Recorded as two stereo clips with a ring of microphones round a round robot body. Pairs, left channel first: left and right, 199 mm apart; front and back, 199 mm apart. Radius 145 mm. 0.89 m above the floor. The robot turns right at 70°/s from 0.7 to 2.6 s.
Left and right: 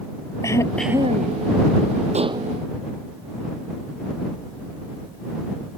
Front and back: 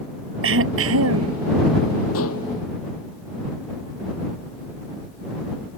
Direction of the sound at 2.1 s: 35° right.